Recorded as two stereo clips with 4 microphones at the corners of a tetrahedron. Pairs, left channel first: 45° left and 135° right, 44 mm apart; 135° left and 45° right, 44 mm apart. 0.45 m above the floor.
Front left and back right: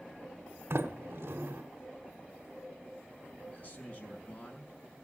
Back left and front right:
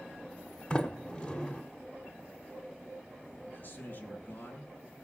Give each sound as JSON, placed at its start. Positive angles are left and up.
{"t": 0.7, "sound": "a sliding door", "azimuth_deg": -155, "distance_m": 1.2}
{"t": 3.5, "sound": "a man speaking", "azimuth_deg": 95, "distance_m": 4.5}